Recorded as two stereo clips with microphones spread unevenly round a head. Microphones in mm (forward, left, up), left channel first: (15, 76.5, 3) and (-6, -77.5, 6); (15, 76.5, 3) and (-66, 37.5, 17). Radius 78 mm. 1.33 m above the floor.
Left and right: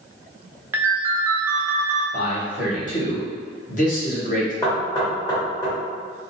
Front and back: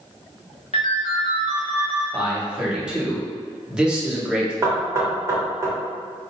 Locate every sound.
0.7 s a ringtone: 25° right, 0.6 m
2.1 s a man speaking: 125° left, 1.4 m
4.6 s knocking: 145° left, 1.6 m